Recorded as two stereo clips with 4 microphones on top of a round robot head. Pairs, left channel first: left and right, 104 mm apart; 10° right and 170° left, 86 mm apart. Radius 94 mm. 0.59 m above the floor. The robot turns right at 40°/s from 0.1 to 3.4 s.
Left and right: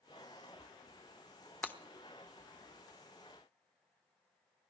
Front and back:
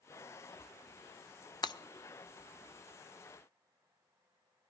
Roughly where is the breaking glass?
Ahead.